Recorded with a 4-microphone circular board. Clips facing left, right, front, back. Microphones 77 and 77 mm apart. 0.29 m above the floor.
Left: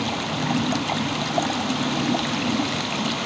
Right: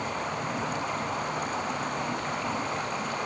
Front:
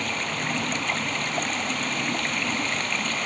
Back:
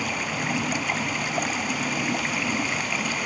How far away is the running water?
About 1.2 m.